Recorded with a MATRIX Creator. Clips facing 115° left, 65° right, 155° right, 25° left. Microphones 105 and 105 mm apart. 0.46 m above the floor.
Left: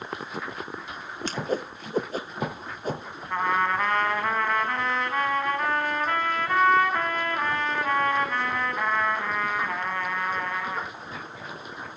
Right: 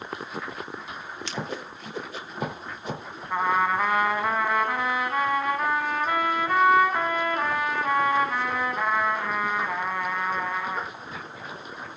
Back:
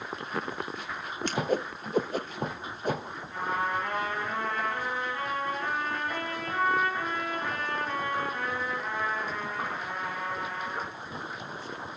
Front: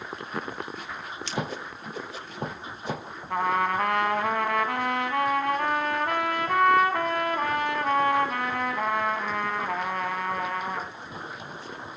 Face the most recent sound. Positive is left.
turn(degrees=15)